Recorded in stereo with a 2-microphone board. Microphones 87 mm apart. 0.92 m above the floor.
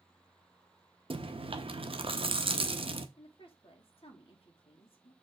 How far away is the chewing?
About 0.7 m.